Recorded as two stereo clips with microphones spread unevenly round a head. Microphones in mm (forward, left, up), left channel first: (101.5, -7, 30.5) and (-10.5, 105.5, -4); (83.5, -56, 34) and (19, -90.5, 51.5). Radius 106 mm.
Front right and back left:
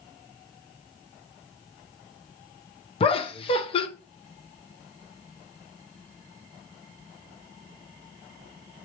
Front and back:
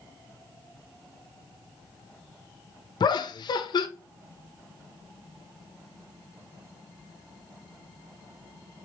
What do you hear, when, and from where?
3.0 s laughter: straight ahead, 0.5 m